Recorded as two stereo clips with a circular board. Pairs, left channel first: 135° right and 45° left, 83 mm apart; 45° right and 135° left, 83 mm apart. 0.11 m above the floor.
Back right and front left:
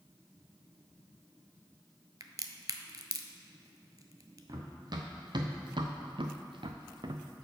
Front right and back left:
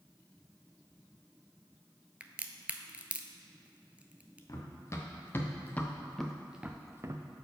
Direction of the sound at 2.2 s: 65° left.